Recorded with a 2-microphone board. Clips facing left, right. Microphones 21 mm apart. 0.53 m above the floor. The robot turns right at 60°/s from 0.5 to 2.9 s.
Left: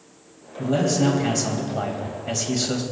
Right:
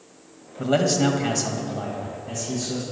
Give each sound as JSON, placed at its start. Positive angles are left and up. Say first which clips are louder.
{"t": 0.6, "sound": "a man speaking", "louder": "right 1 dB", "azimuth_deg": -45, "distance_m": 3.0}